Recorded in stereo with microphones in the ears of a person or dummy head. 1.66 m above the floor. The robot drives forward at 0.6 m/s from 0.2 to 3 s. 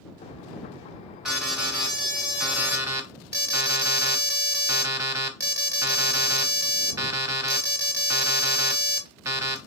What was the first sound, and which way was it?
An alarm, 5° right (ahead or behind).